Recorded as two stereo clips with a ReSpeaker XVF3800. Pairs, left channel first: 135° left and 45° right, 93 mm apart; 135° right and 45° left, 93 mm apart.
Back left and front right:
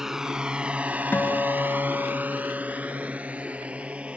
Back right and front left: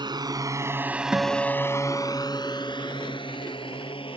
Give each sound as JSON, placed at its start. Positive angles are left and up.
{"t": 0.0, "sound": "a drone", "azimuth_deg": 40}
{"t": 1.1, "sound": "a guitar", "azimuth_deg": 105}